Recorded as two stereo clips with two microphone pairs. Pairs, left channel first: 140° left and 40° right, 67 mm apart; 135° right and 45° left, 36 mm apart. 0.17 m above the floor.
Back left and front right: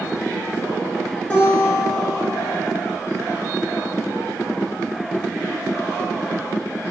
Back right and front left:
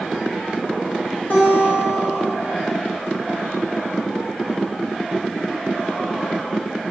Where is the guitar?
155° right, 0.6 m.